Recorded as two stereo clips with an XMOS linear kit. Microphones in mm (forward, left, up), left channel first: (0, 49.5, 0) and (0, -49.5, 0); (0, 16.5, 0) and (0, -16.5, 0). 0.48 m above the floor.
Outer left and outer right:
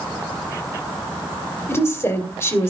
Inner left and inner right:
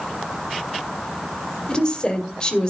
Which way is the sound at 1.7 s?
25° left (ahead or behind).